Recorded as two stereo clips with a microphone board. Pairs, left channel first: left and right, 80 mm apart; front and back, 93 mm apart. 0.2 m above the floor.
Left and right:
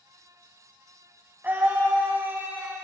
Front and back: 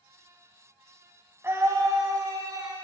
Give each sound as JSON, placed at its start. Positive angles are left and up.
{"t": 1.4, "sound": "a scream", "azimuth_deg": -140, "distance_m": 1.7}